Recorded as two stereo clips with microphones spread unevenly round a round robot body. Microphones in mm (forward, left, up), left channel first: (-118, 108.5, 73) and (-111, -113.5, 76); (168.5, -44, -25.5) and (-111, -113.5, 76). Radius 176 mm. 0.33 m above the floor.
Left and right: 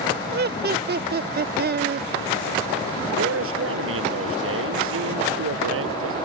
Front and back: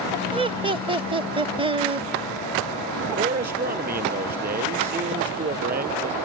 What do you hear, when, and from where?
0.3 s laughter: 80° right
3.2 s a man speaking: 110° right